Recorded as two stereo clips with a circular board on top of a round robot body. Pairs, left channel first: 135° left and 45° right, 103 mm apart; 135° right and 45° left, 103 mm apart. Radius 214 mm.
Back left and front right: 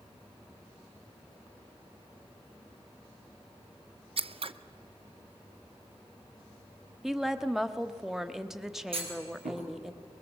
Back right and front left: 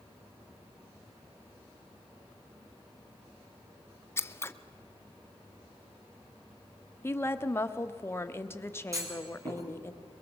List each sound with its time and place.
4.2 s scissors: 70° right, 0.8 m
7.0 s a woman speaking: 125° right, 1.3 m
8.9 s a clunk: 15° right, 4.5 m